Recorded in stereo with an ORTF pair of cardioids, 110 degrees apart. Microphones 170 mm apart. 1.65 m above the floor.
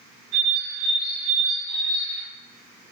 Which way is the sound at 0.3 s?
70° right.